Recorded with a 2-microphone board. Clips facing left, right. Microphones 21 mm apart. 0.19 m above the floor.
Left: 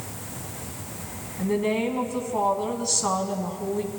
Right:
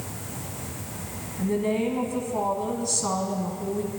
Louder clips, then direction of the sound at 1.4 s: Left 1 dB; 25° left (ahead or behind).